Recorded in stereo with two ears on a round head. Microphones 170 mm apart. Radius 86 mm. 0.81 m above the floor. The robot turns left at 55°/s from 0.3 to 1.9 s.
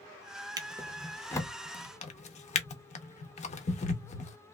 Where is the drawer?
20° right (ahead or behind), 0.6 m; by 4.4 s 40° left (ahead or behind), 0.6 m.